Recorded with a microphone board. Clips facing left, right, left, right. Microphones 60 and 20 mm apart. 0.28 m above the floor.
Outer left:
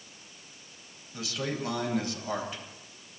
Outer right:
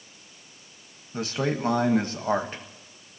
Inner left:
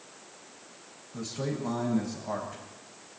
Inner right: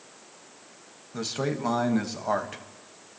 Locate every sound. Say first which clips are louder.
1.1 s a man speaking: outer right 6 dB, inner right 4 dB; 40° right (ahead or behind), 1.5 m